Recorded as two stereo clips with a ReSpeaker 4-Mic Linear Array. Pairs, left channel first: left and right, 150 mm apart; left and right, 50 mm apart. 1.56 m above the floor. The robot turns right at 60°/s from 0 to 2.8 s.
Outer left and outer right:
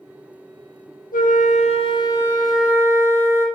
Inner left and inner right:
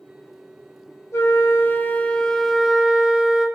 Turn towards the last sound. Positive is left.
turn(degrees=-165)